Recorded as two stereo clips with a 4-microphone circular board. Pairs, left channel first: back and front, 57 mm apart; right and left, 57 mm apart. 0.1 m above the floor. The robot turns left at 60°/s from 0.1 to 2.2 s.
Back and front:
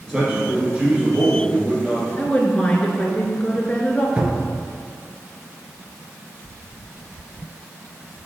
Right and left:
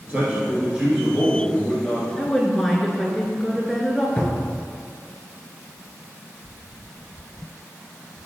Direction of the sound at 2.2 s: 165° right.